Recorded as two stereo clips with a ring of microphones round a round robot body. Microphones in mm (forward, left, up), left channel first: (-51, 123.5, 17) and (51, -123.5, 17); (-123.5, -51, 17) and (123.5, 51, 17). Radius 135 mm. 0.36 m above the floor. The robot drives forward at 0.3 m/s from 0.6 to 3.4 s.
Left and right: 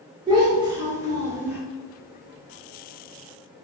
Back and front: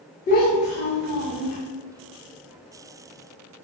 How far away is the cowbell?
I don't hear a cowbell.